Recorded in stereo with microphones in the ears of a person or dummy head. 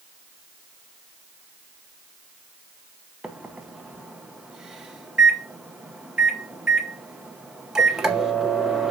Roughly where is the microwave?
Centre.